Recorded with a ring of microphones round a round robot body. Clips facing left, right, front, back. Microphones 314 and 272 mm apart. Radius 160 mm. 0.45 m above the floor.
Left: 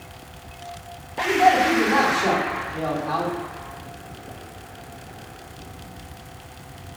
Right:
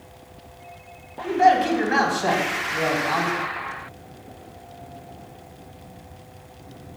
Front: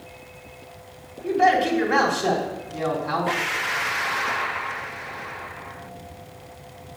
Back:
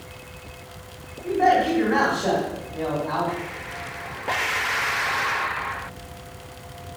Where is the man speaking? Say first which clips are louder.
Even, even; 55° right, 3.5 m.